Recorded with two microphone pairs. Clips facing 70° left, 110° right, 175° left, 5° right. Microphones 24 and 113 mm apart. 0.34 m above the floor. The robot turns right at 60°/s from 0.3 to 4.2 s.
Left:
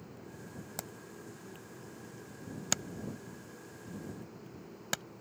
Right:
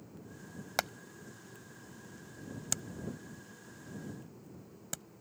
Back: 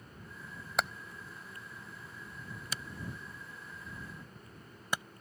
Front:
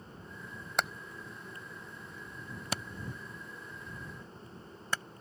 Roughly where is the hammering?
Right.